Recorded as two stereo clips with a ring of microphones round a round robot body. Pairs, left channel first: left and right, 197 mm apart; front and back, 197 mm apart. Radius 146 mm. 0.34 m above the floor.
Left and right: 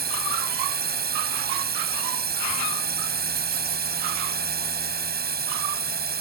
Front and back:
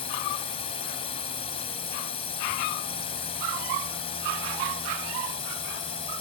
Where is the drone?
65° right.